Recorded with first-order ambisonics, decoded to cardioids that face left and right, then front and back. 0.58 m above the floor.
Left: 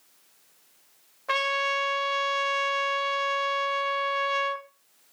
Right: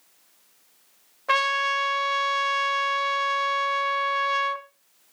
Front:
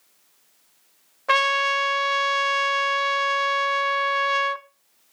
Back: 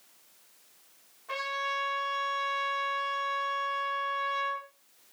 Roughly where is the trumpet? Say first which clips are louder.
Right 3 dB, front 13 dB; ahead.